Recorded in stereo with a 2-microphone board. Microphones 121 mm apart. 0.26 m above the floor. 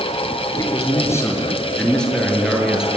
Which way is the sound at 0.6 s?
30° left (ahead or behind).